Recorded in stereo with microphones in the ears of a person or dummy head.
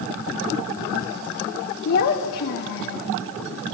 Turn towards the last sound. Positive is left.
turn(degrees=55)  # may be behind; listen again after turning